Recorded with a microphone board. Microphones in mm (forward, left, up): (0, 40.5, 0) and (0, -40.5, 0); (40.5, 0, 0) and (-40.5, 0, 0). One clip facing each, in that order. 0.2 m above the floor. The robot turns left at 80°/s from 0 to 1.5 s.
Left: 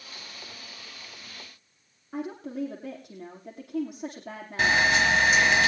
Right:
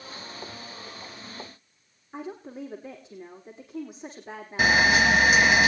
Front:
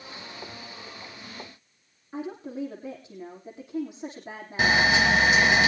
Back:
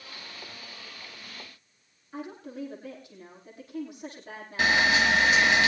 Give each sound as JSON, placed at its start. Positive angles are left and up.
{"t": 2.1, "sound": "a woman speaking", "azimuth_deg": 70, "distance_m": 7.5}
{"t": 4.6, "sound": "a camera shutter", "azimuth_deg": -25, "distance_m": 1.6}